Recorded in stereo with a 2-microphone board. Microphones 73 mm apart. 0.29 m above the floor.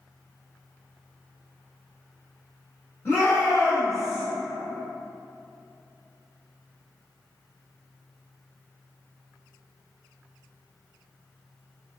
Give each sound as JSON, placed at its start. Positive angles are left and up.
{"t": 3.0, "sound": "a shout", "side_deg": 20, "distance_m": 1.9}